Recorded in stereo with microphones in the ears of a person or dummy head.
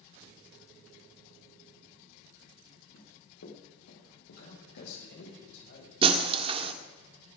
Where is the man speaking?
60° left (ahead or behind), 7 m.